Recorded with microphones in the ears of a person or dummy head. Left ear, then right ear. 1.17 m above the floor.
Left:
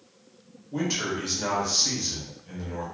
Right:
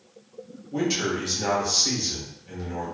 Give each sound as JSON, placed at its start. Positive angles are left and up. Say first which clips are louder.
{"t": 0.7, "sound": "a man speaking", "louder": "right 3 dB", "side_deg": 0, "distance_m": 0.8}